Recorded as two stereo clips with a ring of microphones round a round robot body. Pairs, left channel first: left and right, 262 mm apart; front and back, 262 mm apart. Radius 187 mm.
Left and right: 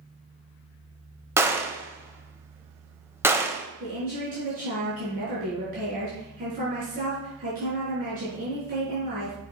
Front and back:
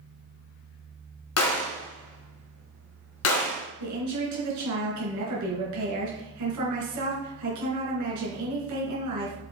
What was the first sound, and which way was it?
A gunshot, 10° right.